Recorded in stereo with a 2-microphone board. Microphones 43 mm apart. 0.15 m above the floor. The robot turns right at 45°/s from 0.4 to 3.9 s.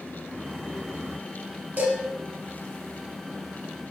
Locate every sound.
1.8 s dishes clattering: 45° right (ahead or behind), 1.6 m; by 2.0 s 40° right (ahead or behind), 1.6 m